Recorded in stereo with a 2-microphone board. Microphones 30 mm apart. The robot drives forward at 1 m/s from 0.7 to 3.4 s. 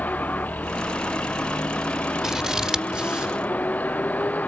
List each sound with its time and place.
0.0 s a vehicle: 75° left (ahead or behind); by 4.5 s 70° left (ahead or behind)
2.2 s scissors: 20° right (ahead or behind); by 3.4 s 30° right (ahead or behind)